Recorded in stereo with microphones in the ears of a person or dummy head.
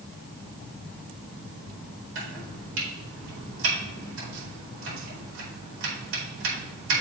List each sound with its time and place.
2.1 s chopping: 85° right, 4.5 m